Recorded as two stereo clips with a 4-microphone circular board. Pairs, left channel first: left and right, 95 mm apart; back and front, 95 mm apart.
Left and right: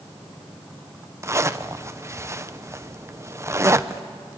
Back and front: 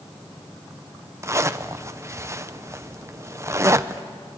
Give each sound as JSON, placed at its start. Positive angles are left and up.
{"t": 1.2, "sound": "a zipper", "azimuth_deg": -45, "distance_m": 0.7}